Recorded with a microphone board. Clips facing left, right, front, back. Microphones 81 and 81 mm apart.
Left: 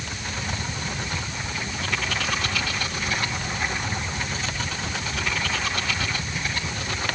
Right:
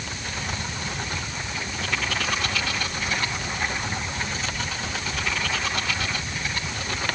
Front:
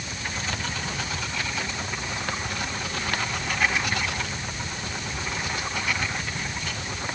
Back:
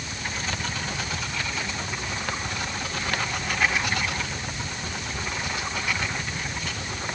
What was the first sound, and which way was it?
Only background noise.